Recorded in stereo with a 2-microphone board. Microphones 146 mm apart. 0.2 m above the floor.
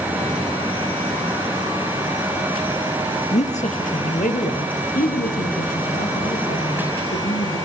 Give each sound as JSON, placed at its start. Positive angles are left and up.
{"t": 3.3, "sound": "a man speaking", "side_deg": 50, "distance_m": 3.0}